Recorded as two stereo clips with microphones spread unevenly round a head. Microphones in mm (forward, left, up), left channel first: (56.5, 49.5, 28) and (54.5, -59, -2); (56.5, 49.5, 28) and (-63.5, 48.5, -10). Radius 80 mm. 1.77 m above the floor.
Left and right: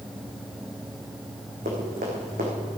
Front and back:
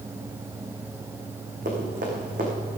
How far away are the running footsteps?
About 5 m.